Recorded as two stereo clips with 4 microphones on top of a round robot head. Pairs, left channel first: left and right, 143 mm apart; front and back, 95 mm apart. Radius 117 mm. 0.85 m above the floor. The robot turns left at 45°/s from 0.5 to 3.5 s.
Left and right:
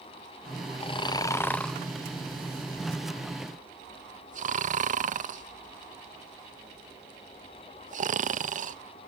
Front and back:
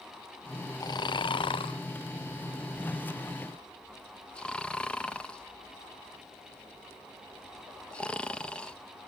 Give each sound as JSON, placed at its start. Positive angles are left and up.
{"t": 0.8, "sound": "snoring", "azimuth_deg": 45, "distance_m": 0.5}